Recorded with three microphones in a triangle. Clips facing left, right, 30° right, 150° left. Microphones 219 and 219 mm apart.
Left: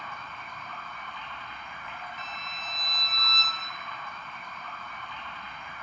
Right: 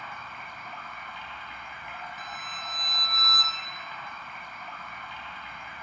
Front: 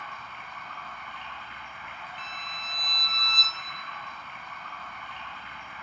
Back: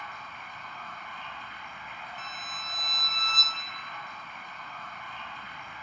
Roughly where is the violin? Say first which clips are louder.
Even, even; behind right.